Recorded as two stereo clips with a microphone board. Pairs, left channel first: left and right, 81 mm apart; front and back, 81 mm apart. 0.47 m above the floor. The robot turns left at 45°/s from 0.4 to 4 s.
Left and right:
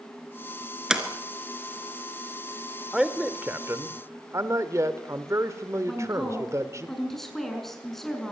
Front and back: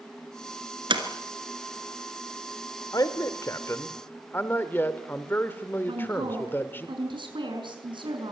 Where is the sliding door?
170° right, 2.5 m; by 1.0 s 175° right, 2.5 m.